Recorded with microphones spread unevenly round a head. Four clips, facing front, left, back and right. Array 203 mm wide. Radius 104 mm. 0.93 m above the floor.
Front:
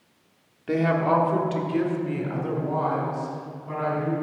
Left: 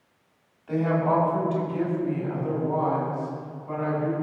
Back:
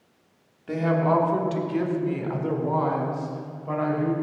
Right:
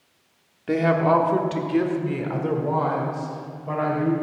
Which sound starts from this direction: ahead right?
A woman speaking, at 0.7 s.